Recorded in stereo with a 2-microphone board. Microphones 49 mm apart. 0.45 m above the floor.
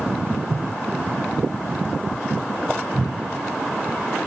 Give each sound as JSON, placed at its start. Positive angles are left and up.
{"t": 0.3, "sound": "footsteps", "side_deg": -65, "distance_m": 1.0}